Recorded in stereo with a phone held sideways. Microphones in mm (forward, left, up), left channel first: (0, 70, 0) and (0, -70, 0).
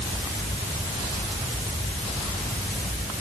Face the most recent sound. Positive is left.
No sound to turn to.